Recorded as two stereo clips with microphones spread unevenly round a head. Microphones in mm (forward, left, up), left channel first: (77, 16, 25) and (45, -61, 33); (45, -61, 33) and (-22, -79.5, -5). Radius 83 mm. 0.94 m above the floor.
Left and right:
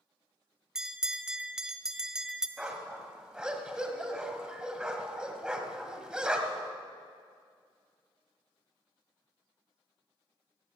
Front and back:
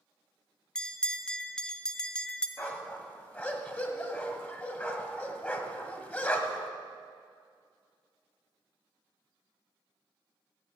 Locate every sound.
0.8 s a bell: 160° left, 0.5 m
2.6 s a dog barking: 35° right, 1.5 m